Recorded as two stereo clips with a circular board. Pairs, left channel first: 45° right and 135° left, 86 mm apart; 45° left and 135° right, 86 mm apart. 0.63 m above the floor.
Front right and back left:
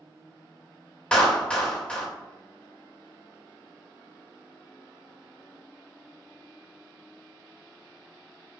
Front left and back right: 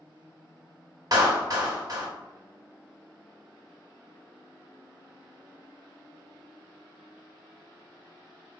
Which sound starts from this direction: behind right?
A clap, at 1.1 s.